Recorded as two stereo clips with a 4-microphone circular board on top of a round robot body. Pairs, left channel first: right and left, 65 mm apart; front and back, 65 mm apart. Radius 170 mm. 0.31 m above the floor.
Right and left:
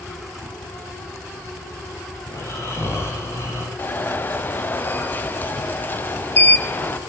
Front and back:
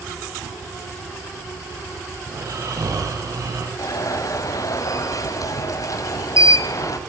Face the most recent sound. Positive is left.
turn(degrees=-30)